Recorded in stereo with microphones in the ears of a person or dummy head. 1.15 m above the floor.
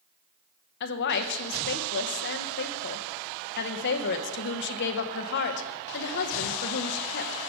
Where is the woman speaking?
60° left (ahead or behind), 0.8 m.